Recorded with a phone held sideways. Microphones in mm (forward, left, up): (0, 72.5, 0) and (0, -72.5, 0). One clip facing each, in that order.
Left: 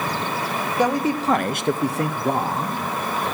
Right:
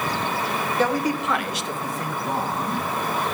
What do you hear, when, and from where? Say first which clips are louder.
0.8 s a man speaking: left 3 dB; 15° left (ahead or behind), 1.0 m; by 2.9 s 50° left (ahead or behind), 1.4 m